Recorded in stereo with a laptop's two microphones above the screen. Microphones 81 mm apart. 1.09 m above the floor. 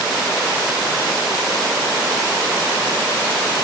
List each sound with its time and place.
Only background noise.